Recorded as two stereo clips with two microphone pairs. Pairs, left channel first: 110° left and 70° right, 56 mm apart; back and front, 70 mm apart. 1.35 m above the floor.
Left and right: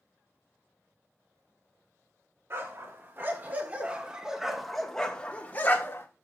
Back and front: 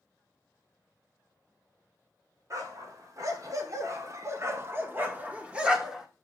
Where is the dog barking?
30° right, 1.8 m; by 6.1 s 80° left, 1.3 m.